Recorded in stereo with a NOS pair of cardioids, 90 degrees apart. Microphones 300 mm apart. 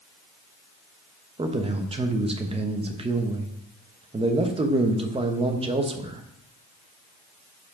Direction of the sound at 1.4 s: 20° right.